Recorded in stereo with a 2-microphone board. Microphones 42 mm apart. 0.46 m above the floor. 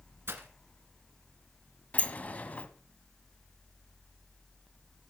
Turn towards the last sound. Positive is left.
turn(degrees=35)  # may be behind; listen again after turning